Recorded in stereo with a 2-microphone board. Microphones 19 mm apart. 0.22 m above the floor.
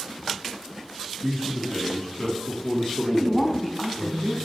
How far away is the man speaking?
About 1.3 m.